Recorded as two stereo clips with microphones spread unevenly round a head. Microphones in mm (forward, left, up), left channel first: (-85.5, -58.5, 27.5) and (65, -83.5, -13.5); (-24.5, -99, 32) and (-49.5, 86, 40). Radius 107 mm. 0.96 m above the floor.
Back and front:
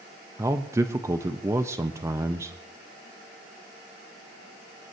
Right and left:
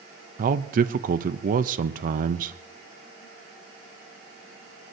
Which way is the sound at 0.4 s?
55° left.